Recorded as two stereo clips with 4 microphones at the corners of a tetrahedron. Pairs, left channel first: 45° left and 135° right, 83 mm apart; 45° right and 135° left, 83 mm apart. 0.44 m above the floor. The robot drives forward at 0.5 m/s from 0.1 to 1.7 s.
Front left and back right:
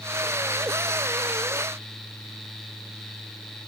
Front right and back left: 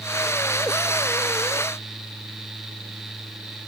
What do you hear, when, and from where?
Only background noise.